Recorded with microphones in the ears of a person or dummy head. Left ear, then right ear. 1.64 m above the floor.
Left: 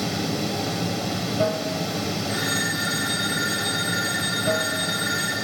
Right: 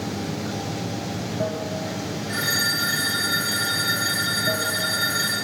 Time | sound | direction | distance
0.0 | running water | 75° left (ahead or behind) | 1.2 m
2.3 | a phone ringing | 10° right (ahead or behind) | 3.5 m